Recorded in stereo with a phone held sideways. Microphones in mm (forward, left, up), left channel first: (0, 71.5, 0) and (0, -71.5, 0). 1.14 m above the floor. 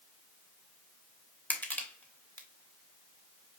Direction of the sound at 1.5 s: 10° left (ahead or behind).